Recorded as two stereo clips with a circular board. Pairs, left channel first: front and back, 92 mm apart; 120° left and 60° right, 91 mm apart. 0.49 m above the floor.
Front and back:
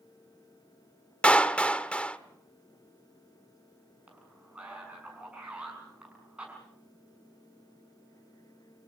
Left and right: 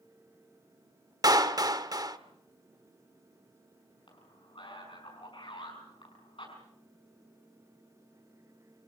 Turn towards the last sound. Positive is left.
turn(degrees=105)